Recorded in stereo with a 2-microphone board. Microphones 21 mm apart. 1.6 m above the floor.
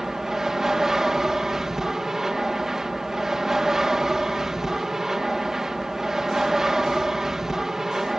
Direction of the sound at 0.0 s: 25° right (ahead or behind).